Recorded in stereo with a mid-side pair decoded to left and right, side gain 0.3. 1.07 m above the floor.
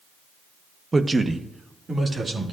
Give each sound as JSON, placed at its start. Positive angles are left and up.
{"t": 0.9, "sound": "a man speaking", "azimuth_deg": -35, "distance_m": 0.7}